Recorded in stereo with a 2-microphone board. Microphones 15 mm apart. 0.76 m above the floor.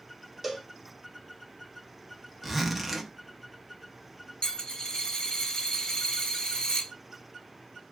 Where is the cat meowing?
No cat meowing in this recording.